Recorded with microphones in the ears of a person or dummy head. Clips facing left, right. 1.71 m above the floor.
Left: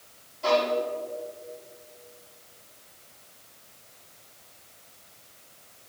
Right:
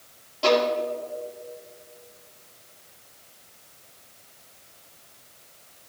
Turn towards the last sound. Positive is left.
turn(degrees=-90)